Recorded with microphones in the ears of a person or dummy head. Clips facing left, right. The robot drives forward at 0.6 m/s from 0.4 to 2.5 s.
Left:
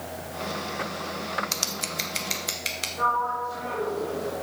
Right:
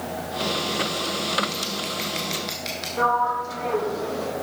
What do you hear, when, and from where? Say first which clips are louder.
1.5 s scissors: right 5 dB; 65° left (ahead or behind), 0.7 m; by 2.9 s 35° left (ahead or behind), 1.1 m
3.0 s a sliding door: right 5 dB; 80° right, 1.8 m